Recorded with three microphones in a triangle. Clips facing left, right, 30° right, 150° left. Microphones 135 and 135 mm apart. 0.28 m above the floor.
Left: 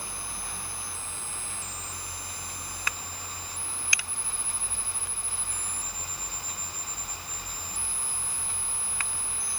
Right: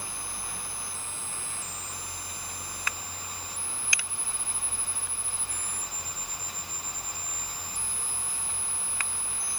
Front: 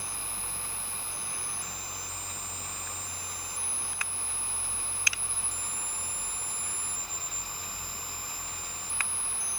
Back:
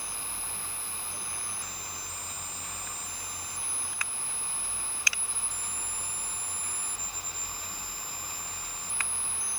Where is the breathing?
I don't hear breathing.